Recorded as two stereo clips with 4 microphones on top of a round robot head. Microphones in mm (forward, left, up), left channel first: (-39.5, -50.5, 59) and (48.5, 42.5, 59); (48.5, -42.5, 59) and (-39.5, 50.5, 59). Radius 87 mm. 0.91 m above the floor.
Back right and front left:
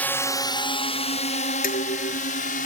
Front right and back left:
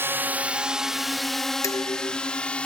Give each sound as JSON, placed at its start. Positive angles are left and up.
{"t": 0.0, "sound": "a drone", "azimuth_deg": 170}
{"t": 1.6, "sound": "dishes clattering", "azimuth_deg": -115}